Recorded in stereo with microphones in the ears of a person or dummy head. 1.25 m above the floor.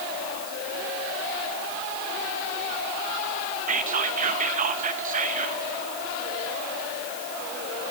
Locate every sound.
3.7 s whispering: 40° right (ahead or behind), 1.2 m